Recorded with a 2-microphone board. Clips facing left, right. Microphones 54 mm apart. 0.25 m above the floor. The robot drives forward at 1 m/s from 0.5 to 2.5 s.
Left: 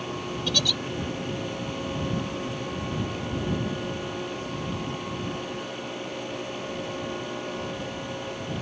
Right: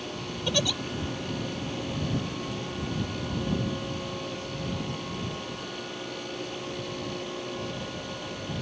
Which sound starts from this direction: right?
A giggle, at 0.5 s.